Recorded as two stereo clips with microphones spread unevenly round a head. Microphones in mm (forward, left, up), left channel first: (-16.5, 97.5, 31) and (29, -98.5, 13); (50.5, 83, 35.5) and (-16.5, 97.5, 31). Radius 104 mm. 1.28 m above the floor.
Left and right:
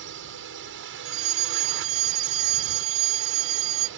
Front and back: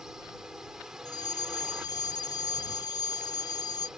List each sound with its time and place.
0.0 s a drone: 105° right
1.1 s a fire alarm: 60° right